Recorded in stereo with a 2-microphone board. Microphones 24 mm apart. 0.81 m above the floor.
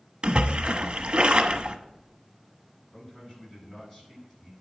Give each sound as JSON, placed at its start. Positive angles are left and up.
{"t": 0.2, "sound": "a splash", "side_deg": -45, "distance_m": 1.1}
{"t": 2.9, "sound": "a man speaking", "side_deg": 15, "distance_m": 8.0}